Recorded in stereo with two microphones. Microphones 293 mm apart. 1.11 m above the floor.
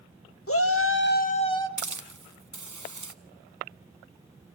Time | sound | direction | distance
0.5 | a shout | 50° left (ahead or behind) | 0.9 m
1.8 | a hiss | 80° right | 0.9 m